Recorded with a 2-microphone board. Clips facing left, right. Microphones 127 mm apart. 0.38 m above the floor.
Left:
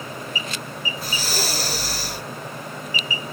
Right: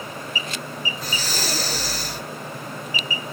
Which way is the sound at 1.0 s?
5° left (ahead or behind).